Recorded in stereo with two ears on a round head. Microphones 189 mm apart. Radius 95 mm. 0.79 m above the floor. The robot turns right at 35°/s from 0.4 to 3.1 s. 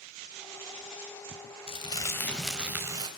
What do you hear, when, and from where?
1.7 s crumpling: 150° left, 4.5 m; by 3.1 s 160° right, 4.5 m